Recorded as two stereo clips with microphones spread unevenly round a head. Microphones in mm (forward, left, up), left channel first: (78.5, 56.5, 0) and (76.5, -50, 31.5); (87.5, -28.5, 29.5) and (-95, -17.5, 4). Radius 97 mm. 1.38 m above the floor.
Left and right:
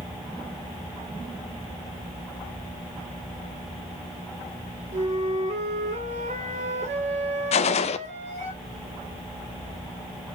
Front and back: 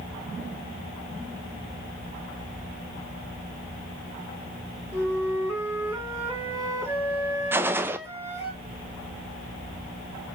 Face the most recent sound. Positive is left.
turn(degrees=95)